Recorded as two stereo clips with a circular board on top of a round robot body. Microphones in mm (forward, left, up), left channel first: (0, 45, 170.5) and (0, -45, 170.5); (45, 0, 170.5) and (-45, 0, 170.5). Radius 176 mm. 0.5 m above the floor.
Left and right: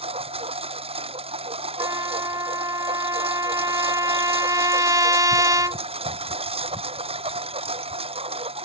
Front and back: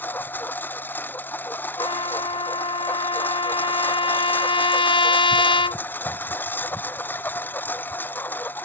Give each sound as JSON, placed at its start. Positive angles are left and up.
{"t": 0.0, "sound": "a lawn mower", "azimuth_deg": -70}
{"t": 1.8, "sound": "a trumpet", "azimuth_deg": -35}